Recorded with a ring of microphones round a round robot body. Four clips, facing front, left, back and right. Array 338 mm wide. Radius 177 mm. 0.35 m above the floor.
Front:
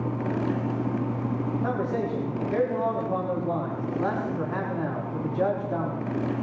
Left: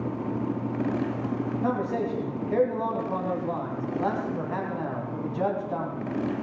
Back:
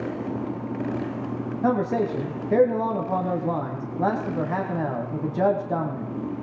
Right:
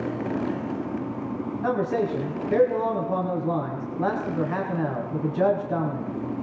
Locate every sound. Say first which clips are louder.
1.6 s a man speaking: right 5 dB, back 8 dB; 165° right, 3 m